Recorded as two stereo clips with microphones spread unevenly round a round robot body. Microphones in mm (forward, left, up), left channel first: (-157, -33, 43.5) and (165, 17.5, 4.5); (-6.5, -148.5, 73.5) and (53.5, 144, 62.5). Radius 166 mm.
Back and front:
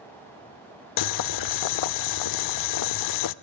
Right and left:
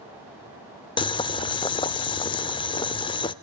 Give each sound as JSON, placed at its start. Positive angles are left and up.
{"t": 1.0, "sound": "boiling", "azimuth_deg": -175, "distance_m": 0.7}